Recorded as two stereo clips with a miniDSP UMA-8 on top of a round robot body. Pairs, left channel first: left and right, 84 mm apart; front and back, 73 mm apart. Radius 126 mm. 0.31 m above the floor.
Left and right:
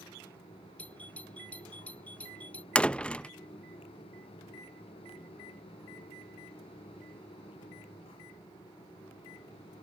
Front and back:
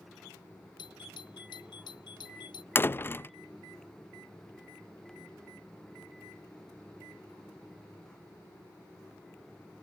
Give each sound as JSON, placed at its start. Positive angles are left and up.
{"t": 0.8, "sound": "a doorbell", "azimuth_deg": 15}
{"t": 2.8, "sound": "a door slam", "azimuth_deg": 25}